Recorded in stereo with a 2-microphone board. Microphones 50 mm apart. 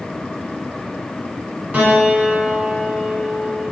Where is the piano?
35° right (ahead or behind), 1.2 m.